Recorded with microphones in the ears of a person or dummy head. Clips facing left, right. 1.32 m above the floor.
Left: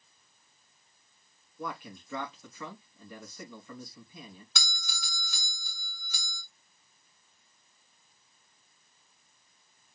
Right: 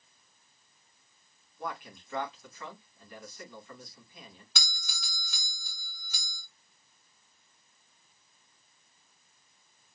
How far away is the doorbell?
About 3 m.